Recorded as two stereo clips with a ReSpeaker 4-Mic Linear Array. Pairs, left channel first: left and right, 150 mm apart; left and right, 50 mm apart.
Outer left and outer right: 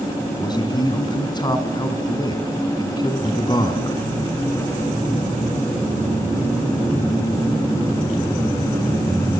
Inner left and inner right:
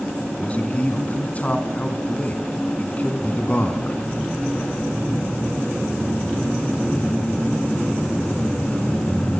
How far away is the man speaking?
About 3 m.